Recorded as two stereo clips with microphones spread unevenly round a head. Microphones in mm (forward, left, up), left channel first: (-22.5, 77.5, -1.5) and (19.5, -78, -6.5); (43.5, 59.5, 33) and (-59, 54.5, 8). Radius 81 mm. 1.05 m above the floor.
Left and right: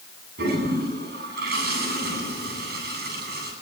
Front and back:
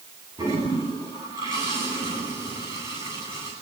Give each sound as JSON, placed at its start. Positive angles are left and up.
{"t": 0.4, "sound": "a toilet flushing", "azimuth_deg": -105, "distance_m": 10.0}